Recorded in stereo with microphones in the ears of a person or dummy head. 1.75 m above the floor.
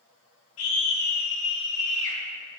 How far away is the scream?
About 2.5 m.